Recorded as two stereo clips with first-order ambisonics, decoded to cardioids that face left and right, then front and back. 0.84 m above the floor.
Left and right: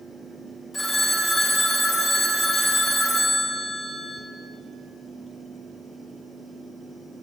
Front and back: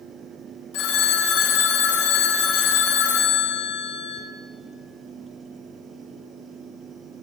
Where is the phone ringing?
10° left, 0.8 m.